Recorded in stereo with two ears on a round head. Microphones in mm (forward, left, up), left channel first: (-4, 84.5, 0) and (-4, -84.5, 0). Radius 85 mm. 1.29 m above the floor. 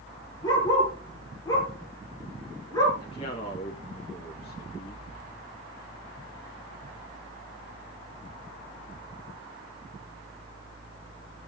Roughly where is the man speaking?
Left.